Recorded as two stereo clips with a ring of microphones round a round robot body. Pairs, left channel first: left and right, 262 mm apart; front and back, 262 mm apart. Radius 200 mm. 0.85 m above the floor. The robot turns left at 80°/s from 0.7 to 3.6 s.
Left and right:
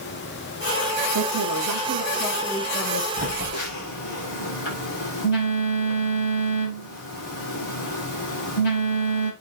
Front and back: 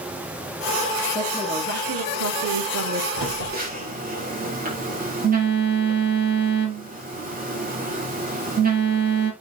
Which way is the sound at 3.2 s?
155° left.